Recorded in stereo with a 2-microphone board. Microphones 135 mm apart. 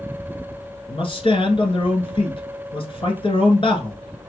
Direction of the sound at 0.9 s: 40° left (ahead or behind).